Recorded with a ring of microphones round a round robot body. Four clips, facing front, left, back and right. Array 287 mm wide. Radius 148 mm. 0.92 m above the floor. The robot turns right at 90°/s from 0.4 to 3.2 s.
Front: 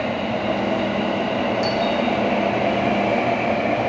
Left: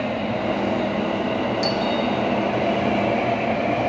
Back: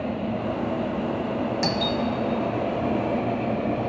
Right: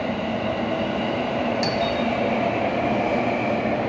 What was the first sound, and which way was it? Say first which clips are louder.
A doorbell: left 1 dB, front 5 dB; 165° right.